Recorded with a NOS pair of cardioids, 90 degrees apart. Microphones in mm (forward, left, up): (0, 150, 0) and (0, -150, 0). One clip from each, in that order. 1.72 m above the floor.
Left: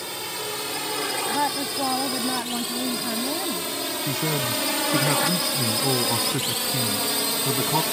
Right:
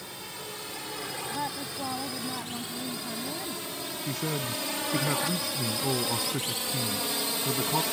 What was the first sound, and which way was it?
A drone, 65° left.